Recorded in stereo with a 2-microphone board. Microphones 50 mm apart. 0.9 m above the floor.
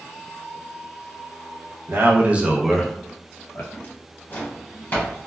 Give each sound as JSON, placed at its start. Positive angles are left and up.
{"t": 1.9, "sound": "a man speaking", "side_deg": -50, "distance_m": 0.7}
{"t": 3.7, "sound": "a drawer", "side_deg": 35, "distance_m": 1.3}